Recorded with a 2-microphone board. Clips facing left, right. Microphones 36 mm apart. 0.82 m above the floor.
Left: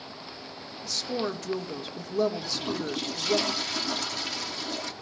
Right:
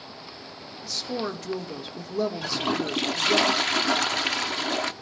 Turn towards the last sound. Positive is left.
turn(degrees=-60)  # may be behind; listen again after turning